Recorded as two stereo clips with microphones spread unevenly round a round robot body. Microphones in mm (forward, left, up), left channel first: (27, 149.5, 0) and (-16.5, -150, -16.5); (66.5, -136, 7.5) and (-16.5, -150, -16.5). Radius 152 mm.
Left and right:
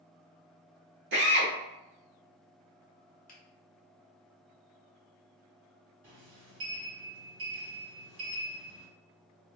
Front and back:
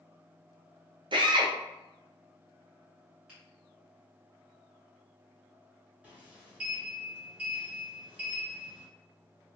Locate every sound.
1.1 s a drill: 155° right, 0.7 m
3.3 s a finger snap: 135° left, 1.0 m
6.0 s a sliding door: 115° right, 1.6 m